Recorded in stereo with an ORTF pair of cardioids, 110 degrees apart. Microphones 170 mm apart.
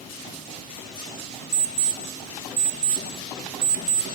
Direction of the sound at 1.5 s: 65° right.